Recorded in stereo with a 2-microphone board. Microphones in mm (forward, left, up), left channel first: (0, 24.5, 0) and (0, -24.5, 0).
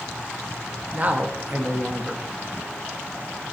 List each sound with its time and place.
0.9 s a man speaking: 30° right (ahead or behind), 0.5 m